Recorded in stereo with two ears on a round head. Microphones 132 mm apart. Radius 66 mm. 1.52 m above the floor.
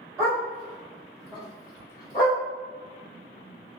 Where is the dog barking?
20° right (ahead or behind), 1.6 m; by 2.4 s 30° left (ahead or behind), 1.3 m.